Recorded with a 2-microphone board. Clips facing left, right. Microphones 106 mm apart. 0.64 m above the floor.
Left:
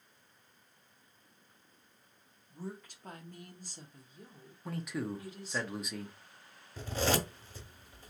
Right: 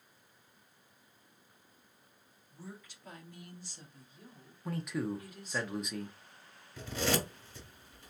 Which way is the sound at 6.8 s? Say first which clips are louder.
Left 1 dB; 40° left (ahead or behind).